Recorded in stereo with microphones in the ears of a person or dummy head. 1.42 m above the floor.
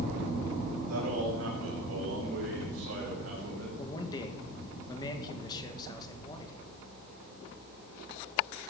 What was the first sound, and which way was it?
A man speaking, 70° right (ahead or behind).